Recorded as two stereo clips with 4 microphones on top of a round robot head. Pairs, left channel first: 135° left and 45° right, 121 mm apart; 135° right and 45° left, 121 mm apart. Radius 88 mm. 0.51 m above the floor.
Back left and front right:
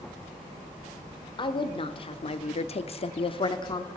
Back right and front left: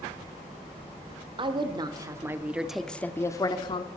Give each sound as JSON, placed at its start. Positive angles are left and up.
{"t": 1.4, "sound": "a woman speaking", "azimuth_deg": 90, "distance_m": 1.6}